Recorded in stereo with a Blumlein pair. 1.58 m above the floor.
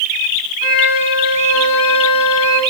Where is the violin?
55° left, 9 m.